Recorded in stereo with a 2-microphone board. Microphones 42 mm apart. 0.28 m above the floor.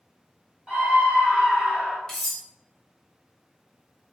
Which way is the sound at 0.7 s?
30° right (ahead or behind).